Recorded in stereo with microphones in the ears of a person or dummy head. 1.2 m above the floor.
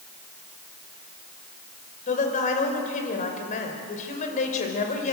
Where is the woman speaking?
35° left (ahead or behind), 5.5 m.